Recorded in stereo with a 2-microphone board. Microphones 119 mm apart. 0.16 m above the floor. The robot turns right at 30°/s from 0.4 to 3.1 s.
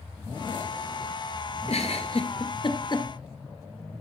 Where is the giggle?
65° left (ahead or behind), 1.5 m; by 3.1 s 35° left (ahead or behind), 1.5 m.